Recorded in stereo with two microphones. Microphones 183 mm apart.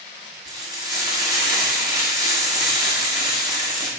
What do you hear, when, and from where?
0.5 s frying: 20° right (ahead or behind), 1.9 m